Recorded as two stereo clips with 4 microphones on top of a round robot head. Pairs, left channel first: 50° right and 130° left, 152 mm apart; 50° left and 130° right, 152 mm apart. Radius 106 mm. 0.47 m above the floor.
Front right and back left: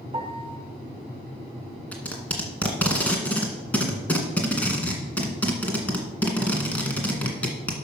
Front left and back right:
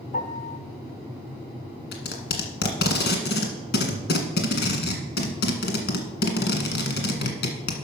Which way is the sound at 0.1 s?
80° left.